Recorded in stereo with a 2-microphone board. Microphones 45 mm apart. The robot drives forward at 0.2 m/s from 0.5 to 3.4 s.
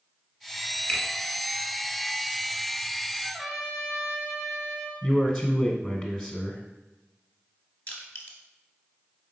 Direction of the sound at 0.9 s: 30° left (ahead or behind).